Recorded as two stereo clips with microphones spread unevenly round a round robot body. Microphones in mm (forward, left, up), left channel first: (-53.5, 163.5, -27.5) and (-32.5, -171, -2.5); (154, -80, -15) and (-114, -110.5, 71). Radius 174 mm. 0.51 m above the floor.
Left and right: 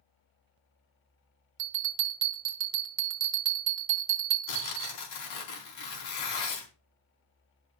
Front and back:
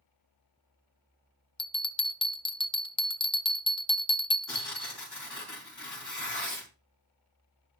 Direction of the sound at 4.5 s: 90° left.